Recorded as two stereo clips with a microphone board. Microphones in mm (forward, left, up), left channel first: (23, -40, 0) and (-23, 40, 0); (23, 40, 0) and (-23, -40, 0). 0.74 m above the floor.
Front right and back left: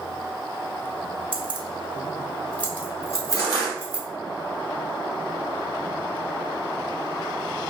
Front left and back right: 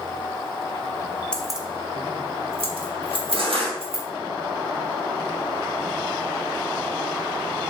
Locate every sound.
1.3 s keys jangling: 140° left, 0.8 m; by 4.0 s 115° right, 2.5 m
3.3 s crushing: 110° right, 2.5 m